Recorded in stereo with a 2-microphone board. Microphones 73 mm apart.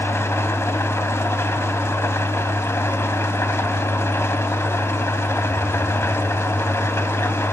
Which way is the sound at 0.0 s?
40° left (ahead or behind).